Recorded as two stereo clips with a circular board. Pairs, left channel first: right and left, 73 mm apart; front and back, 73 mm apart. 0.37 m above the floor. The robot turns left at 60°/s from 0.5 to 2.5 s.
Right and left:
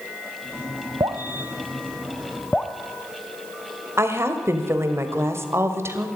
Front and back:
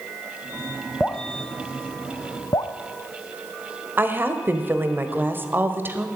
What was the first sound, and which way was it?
Dripping, 75° left.